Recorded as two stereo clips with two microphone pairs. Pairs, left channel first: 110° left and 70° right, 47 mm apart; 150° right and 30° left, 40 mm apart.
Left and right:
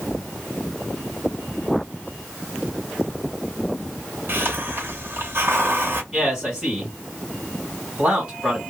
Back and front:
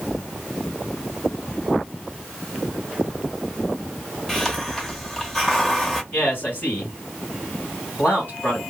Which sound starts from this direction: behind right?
A man speaking, at 6.1 s.